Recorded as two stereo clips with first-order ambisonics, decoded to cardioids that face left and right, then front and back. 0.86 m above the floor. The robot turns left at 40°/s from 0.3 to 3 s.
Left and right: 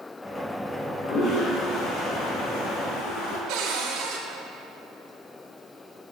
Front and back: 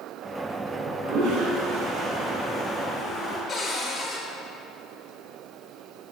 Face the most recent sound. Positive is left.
turn(degrees=-65)